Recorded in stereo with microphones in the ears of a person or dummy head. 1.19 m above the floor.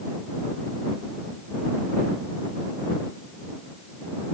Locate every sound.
Only background noise.